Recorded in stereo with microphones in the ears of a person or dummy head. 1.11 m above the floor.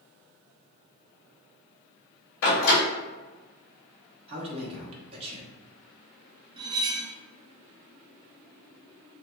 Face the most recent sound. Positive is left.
turn(degrees=-25)  # may be behind; listen again after turning